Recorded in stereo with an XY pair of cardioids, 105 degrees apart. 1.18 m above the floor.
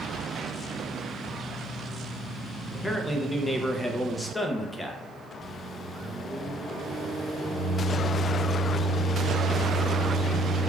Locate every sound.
2.7 s a man speaking: 15° left, 0.5 m
5.4 s a microwave: 40° left, 1.3 m